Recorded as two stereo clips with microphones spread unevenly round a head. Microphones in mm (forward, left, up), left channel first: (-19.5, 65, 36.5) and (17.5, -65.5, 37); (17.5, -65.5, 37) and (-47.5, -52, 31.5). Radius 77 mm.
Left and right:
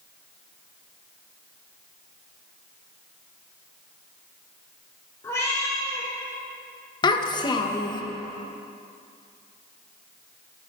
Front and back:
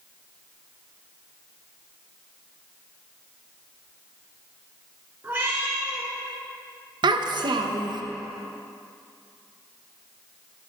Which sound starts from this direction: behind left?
A cat meowing, at 5.2 s.